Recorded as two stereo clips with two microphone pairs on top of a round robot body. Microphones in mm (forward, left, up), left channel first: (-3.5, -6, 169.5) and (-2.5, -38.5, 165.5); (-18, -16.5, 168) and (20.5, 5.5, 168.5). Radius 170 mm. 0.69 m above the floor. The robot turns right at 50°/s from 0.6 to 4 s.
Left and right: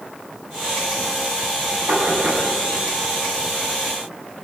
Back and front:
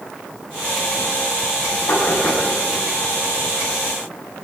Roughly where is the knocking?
Behind right.